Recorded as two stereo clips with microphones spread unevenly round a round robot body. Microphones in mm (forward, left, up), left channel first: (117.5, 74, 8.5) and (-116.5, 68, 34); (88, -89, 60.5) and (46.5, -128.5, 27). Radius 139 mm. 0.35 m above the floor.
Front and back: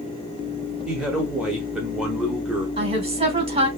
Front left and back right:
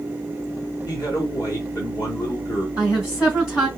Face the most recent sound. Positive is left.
turn(degrees=115)